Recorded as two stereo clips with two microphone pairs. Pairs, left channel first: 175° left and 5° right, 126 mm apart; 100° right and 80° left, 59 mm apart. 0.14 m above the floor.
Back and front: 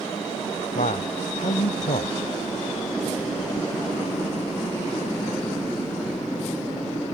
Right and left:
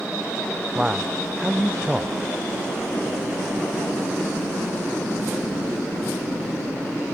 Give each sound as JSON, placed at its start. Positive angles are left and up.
{"t": 0.8, "sound": "a man speaking", "azimuth_deg": 160}